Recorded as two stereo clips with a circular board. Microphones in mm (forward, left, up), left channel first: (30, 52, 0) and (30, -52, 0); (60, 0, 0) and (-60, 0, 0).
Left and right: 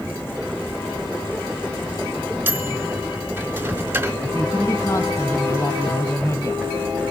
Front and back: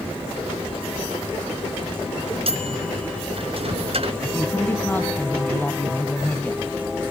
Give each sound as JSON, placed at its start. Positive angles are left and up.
{"t": 2.5, "sound": "a microwave", "azimuth_deg": -160, "distance_m": 3.0}
{"t": 4.2, "sound": "a woman speaking", "azimuth_deg": 60, "distance_m": 1.9}